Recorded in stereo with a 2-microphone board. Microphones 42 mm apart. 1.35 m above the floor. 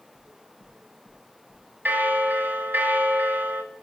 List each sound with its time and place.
0.1 s knocking: 25° right (ahead or behind), 5 m
1.9 s a bell: 55° right (ahead or behind), 1.3 m